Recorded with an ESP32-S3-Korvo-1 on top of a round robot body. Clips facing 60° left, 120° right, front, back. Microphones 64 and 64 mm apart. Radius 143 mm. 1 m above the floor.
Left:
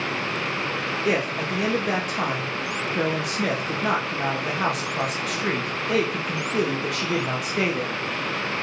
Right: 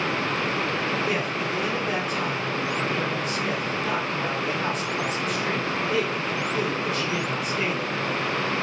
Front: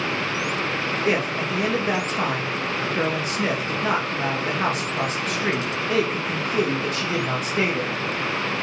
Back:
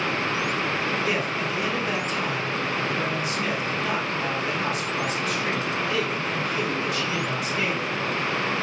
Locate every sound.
1.1 s a man speaking: 45° left, 1.8 m